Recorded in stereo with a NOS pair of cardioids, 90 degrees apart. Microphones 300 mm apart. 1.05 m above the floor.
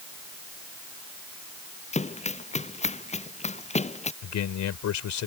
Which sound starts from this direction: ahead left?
A man speaking, at 4.2 s.